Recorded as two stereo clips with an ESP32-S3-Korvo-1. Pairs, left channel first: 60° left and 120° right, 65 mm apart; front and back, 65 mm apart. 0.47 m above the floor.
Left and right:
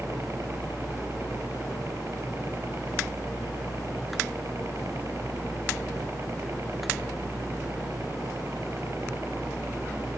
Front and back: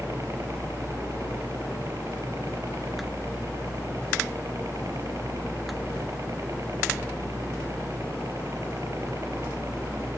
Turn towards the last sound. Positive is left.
turn(degrees=-160)